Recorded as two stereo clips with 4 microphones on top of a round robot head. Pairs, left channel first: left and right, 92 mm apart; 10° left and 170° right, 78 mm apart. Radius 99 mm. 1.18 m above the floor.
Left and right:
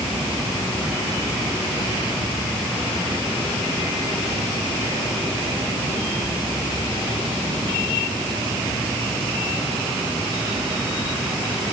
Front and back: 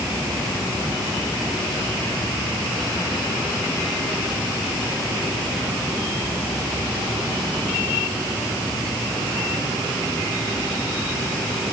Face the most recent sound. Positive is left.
No sound to turn to.